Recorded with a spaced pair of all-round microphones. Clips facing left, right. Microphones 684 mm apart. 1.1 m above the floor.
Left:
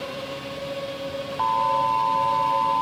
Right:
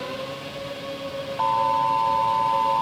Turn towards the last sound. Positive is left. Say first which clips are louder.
# right 1 dB
turn(degrees=-65)  # may be behind; listen again after turning